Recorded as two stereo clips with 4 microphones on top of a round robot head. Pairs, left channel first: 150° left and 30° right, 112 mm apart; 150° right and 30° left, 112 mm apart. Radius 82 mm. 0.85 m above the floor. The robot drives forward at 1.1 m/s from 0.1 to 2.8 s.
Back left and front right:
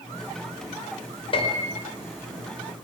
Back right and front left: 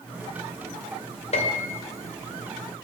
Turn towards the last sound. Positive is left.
turn(degrees=-175)